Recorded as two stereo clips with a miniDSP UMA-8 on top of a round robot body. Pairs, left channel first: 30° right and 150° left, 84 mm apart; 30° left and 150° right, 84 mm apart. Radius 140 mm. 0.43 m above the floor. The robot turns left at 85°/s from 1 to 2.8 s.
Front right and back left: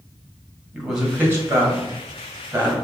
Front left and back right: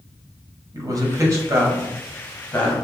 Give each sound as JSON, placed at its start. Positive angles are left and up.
{"t": 0.7, "sound": "a man speaking", "azimuth_deg": -130, "distance_m": 1.7}